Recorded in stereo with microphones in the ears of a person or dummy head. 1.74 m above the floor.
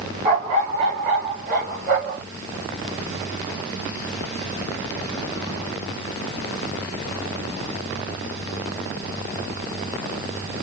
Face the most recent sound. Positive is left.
turn(degrees=-55)  # may be behind; listen again after turning